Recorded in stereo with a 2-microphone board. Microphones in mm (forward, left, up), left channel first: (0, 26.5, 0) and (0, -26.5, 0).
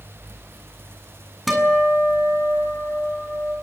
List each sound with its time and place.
1.5 s a guitar: centre (ahead or behind), 7 m